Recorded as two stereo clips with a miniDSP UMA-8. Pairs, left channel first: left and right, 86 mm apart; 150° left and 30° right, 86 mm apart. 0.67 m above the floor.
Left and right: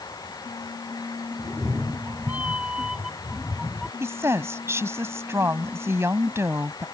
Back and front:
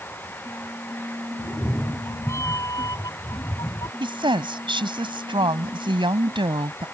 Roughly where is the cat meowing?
Behind right.